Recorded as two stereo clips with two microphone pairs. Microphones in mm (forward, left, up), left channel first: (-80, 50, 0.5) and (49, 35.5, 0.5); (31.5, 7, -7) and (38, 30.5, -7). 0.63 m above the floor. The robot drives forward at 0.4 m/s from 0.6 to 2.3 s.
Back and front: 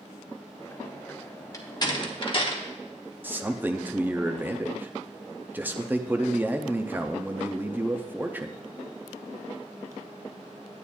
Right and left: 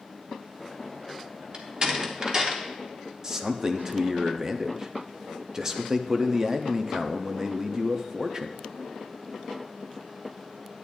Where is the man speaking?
55° left, 0.6 m.